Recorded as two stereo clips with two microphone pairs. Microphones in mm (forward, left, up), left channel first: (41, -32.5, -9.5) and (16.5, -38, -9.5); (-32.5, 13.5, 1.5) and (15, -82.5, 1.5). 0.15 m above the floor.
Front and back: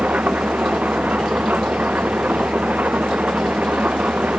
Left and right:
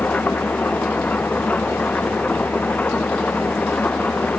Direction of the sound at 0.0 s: 165° right.